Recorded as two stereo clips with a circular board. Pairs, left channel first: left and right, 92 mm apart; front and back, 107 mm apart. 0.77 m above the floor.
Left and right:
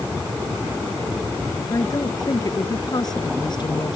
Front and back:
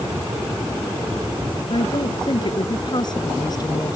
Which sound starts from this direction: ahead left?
A woman speaking, at 1.7 s.